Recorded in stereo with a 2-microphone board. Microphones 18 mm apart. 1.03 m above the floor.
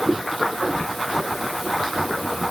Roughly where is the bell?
No bell in this recording.